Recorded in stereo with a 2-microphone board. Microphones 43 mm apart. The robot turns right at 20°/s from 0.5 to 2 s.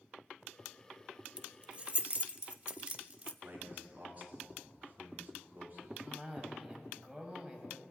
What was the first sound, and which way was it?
Keys jangling, 25° right (ahead or behind).